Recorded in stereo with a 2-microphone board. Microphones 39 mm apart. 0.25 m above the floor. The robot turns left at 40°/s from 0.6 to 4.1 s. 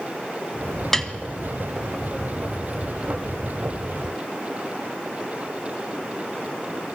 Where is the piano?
10° left (ahead or behind), 1.2 m; by 1.1 s 20° left (ahead or behind), 1.2 m.